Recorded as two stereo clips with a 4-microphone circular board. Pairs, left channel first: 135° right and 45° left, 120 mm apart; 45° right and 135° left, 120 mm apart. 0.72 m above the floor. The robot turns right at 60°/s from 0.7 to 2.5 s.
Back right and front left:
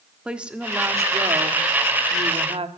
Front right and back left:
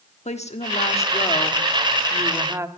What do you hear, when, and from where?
0.2 s a woman speaking: 35° right, 1.1 m; by 2.7 s 70° left, 1.1 m